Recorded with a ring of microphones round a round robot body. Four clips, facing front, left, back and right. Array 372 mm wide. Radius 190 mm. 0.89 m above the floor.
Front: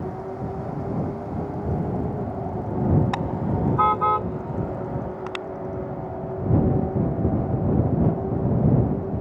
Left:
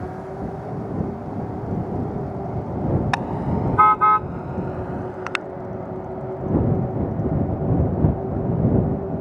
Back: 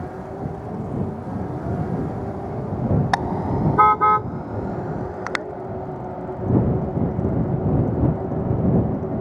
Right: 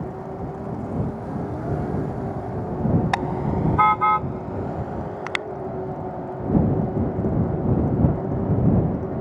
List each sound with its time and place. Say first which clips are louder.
3.1 s a car horn: even, back 4 dB; 165° left